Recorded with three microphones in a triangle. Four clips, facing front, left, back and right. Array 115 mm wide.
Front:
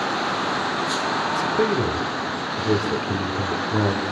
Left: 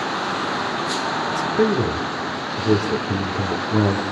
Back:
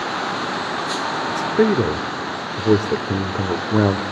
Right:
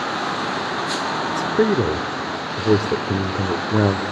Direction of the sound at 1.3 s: 150° right.